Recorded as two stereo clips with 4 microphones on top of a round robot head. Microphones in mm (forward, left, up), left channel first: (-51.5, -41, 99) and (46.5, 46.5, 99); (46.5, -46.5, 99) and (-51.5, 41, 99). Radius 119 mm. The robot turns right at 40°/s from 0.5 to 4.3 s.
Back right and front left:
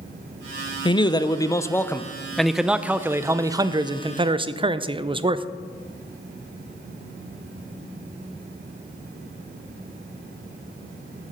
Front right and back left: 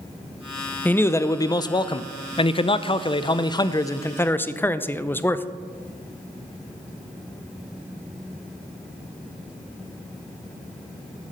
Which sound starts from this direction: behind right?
A man speaking, at 0.8 s.